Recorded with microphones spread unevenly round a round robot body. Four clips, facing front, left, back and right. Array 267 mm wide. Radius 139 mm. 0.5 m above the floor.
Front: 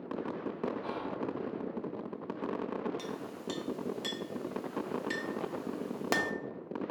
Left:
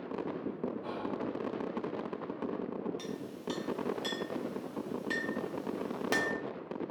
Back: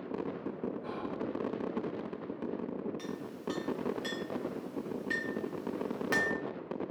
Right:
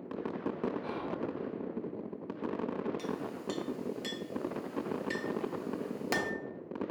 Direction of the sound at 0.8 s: 20° left.